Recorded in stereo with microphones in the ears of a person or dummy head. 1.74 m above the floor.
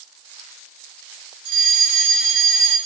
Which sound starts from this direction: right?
A fire alarm, at 1.4 s.